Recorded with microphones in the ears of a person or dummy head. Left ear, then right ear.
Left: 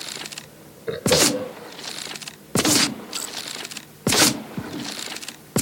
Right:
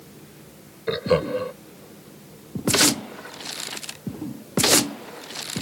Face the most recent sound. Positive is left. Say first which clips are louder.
# left 3 dB
turn(degrees=-30)  # may be behind; listen again after turning